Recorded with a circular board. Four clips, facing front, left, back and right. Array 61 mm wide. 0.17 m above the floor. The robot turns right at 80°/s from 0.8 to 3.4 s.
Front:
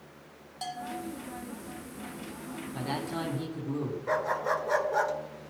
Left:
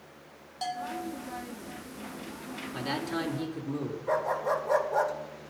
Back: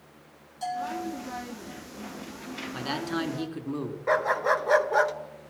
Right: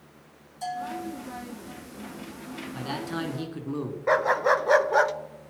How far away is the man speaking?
About 2.5 m.